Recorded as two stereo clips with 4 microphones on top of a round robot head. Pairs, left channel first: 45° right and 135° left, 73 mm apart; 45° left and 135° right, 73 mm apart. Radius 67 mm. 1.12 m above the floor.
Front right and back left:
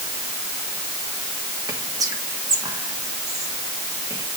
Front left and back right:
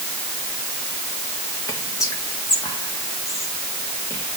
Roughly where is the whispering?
Left.